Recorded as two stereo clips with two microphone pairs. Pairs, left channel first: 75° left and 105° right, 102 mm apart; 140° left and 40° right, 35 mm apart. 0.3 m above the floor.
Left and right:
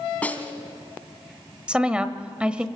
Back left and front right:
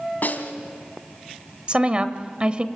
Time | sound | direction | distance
0.2 | a snare drum | 150° left | 1.8 m
1.7 | a woman speaking | 40° right | 1.1 m